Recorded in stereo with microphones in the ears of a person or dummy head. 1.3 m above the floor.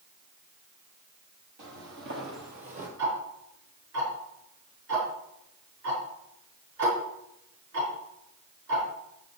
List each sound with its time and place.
1.6 s footsteps: 60° right (ahead or behind), 2.5 m; by 2.9 s 35° right (ahead or behind), 2 m
3.0 s ticking: 70° right (ahead or behind), 5 m